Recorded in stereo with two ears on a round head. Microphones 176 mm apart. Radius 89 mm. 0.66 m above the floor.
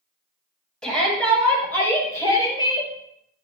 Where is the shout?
5° left (ahead or behind), 5.5 m; by 2.9 s 25° left (ahead or behind), 4 m.